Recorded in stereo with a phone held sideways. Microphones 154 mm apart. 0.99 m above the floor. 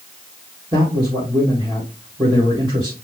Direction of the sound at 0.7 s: 30° right (ahead or behind).